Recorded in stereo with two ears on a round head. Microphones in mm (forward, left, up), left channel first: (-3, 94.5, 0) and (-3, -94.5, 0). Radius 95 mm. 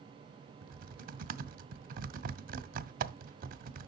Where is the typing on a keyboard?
40° right (ahead or behind), 0.6 m.